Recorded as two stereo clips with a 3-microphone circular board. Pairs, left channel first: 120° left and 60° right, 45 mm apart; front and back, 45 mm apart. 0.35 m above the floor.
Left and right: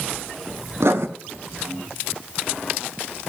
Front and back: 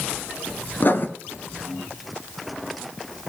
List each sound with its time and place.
0.8 s writing: 40° right, 1.0 m